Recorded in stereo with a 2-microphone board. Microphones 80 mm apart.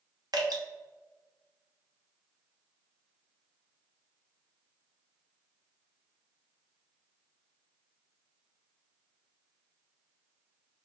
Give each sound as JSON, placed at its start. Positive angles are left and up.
{"t": 0.3, "sound": "dripping", "side_deg": -60, "distance_m": 0.8}